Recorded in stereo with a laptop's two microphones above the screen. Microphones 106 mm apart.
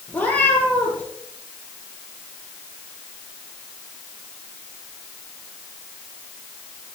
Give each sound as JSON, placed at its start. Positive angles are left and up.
{"t": 0.1, "sound": "a cat meowing", "side_deg": 15, "distance_m": 3.0}